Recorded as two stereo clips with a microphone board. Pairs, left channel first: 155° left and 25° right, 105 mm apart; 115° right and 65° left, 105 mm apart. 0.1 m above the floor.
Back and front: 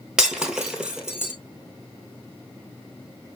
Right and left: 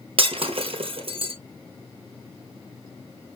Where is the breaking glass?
60° left, 1.2 m.